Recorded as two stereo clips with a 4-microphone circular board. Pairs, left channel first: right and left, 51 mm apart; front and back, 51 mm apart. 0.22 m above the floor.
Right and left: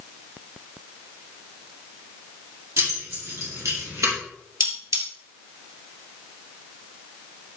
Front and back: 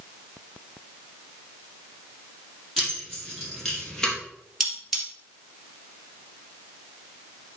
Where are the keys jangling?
90° left, 5 m; by 4.2 s 75° left, 3.5 m.